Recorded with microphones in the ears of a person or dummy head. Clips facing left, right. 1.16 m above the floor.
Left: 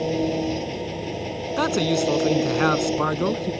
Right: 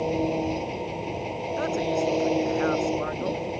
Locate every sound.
0.0 s an engine running: 15° left (ahead or behind)
1.6 s a man speaking: 85° left